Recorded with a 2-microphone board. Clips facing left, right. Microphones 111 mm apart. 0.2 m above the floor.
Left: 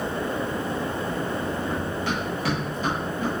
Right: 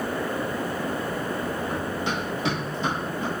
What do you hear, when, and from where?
1.7 s running footsteps: 15° right (ahead or behind), 3 m; by 3.3 s 25° right (ahead or behind), 5.5 m